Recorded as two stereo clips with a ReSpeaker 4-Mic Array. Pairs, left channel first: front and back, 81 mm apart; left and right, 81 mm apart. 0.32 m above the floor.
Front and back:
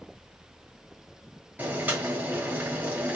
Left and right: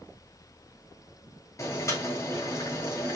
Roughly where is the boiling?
Behind left.